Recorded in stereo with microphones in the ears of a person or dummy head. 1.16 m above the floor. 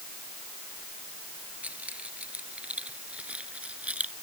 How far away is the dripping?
I don't hear dripping.